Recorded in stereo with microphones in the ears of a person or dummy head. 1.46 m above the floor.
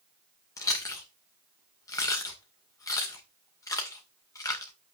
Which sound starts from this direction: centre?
Chewing, at 0.6 s.